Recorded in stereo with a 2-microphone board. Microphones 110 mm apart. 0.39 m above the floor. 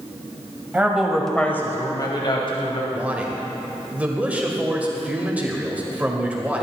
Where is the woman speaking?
15° right (ahead or behind), 2 m; by 2.8 s 60° left (ahead or behind), 2.5 m.